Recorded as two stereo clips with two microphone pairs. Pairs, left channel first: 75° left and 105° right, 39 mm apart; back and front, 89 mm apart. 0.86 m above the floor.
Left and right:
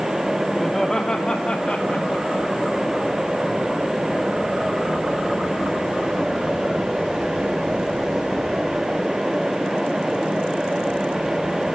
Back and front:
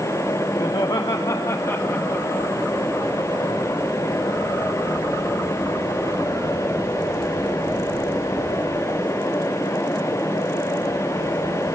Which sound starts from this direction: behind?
Laughter, at 0.6 s.